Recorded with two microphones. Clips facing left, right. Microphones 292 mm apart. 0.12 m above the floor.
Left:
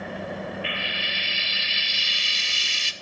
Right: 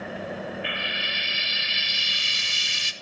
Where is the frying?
55° right (ahead or behind), 1.0 m.